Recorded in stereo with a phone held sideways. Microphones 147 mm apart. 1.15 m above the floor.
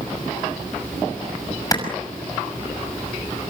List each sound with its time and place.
1.7 s a clap: 25° left (ahead or behind), 6 m